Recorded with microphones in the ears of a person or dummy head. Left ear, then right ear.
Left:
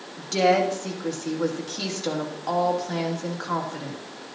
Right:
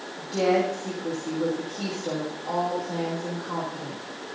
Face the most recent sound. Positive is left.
turn(degrees=80)